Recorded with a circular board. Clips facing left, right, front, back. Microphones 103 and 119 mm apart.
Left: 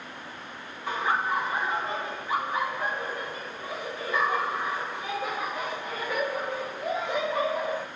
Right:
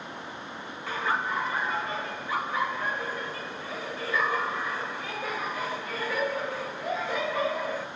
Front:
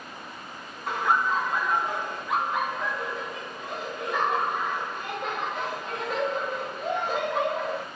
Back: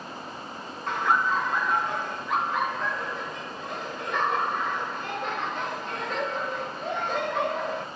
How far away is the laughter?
About 1.5 m.